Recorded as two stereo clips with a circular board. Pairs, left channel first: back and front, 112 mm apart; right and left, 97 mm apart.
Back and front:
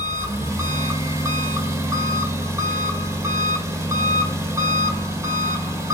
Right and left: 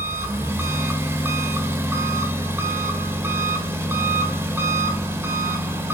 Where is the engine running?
40° left, 1.4 m.